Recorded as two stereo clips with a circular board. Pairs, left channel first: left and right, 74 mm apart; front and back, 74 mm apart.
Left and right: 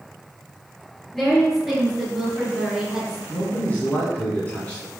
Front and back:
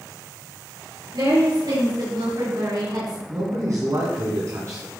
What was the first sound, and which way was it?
A woman speaking, 175° left.